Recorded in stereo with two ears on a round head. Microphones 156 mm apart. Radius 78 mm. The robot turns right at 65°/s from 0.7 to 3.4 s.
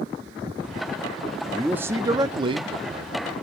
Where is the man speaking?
5° right (ahead or behind), 0.7 m; by 3.2 s 25° right (ahead or behind), 0.7 m.